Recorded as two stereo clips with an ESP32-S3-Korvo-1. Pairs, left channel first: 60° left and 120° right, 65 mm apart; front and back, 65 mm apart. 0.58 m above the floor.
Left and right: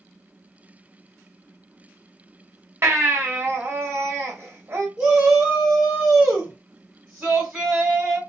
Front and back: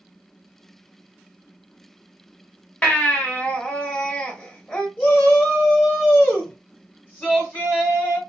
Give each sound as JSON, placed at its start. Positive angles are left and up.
{"t": 2.8, "sound": "a baby crying", "azimuth_deg": -70, "distance_m": 0.8}
{"t": 5.0, "sound": "a shout", "azimuth_deg": -45, "distance_m": 1.3}